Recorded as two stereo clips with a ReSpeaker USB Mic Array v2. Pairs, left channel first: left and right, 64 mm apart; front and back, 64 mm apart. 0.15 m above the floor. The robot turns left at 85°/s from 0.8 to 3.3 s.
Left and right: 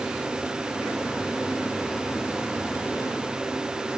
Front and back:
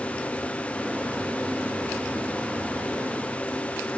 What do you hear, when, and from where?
Only background noise.